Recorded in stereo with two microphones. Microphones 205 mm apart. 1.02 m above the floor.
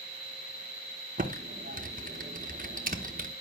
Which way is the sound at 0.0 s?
50° left (ahead or behind).